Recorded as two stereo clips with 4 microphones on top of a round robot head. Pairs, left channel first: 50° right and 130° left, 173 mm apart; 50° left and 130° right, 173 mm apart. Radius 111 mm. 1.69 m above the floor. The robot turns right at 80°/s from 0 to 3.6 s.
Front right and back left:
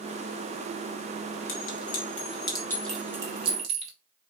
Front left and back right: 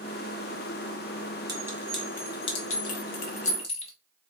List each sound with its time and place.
1.5 s a clink: 75° right, 0.8 m; by 3.9 s 95° left, 0.8 m